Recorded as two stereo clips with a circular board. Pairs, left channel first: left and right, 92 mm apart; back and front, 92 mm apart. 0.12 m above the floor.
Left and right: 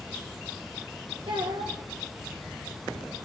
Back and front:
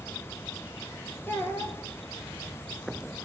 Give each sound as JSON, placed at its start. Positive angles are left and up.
{"t": 1.3, "sound": "a child speaking", "azimuth_deg": -115, "distance_m": 4.0}